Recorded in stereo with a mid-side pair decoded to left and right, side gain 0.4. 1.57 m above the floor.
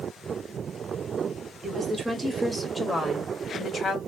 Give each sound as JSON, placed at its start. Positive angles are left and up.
{"t": 1.6, "sound": "a woman speaking", "azimuth_deg": -30, "distance_m": 1.0}